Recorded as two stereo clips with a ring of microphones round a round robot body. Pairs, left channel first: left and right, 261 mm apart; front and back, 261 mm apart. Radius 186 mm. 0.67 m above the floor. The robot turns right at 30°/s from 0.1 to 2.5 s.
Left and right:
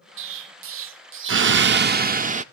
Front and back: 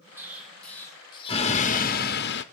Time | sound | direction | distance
0.2 | an explosion | 100° right | 0.6 m